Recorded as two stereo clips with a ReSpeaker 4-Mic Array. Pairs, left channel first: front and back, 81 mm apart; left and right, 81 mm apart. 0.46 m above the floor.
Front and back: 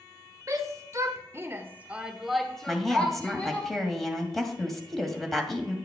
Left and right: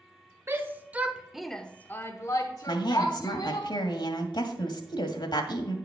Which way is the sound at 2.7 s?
85° left.